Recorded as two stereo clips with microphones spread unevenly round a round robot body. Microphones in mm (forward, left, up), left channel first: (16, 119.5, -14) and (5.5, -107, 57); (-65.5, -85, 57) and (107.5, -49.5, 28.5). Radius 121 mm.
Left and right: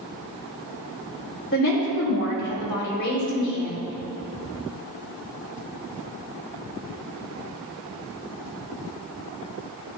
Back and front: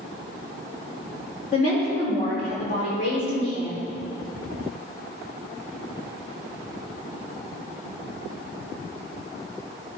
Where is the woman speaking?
135° left, 4 m.